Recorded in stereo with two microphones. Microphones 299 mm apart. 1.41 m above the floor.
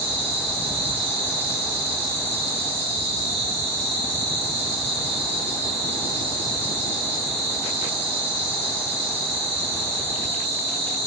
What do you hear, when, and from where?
0.0 s an insect: 55° right (ahead or behind), 4 m